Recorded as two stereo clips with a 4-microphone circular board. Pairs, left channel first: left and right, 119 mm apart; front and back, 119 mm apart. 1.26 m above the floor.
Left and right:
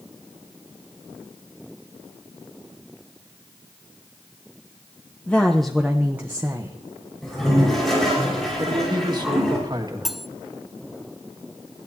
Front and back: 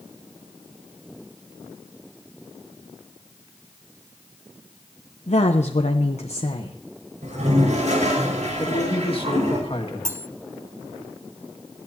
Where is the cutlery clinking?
175° right, 0.5 m.